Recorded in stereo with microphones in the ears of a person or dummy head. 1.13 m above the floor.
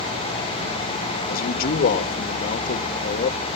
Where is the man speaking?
45° left (ahead or behind), 1.3 m.